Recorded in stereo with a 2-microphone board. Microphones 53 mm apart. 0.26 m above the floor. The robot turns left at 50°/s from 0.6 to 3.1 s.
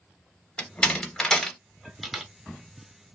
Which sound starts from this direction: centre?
A door slam, at 0.6 s.